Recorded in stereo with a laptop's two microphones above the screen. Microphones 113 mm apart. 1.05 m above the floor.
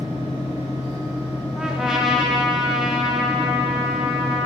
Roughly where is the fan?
Left.